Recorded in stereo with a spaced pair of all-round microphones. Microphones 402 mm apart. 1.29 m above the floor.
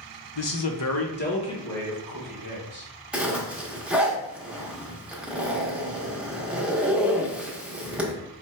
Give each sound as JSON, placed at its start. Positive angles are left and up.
{"t": 0.3, "sound": "a man speaking", "side_deg": 80, "distance_m": 0.7}
{"t": 3.1, "sound": "a zipper", "side_deg": 0, "distance_m": 0.8}